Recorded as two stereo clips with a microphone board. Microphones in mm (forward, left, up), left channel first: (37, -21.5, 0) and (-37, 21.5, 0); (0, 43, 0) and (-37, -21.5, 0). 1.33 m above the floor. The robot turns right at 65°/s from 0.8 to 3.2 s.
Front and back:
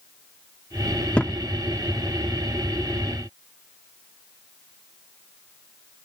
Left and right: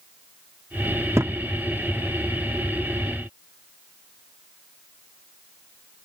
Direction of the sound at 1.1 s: 100° right.